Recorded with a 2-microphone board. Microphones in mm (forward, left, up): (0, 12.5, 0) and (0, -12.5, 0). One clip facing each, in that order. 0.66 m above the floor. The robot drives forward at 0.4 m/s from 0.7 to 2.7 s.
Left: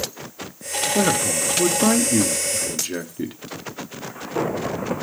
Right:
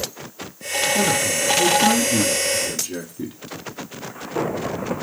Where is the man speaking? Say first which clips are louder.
Left 3 dB; 35° left (ahead or behind), 0.9 m; by 3.4 s 25° left (ahead or behind), 1.1 m.